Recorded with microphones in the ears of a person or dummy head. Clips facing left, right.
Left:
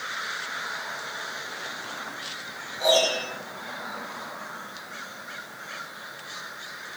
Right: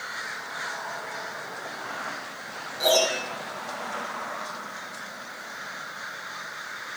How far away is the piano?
About 4 m.